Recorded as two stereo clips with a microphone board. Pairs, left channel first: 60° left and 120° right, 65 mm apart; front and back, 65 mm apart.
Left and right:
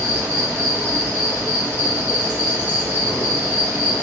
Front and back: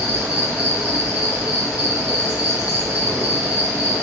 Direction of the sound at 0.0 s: 145° right.